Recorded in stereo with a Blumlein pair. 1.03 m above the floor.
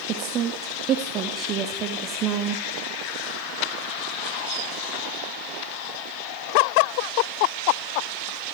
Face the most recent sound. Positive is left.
turn(degrees=-30)